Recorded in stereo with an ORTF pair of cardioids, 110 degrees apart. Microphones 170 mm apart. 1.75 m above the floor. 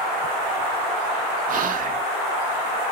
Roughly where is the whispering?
Ahead right.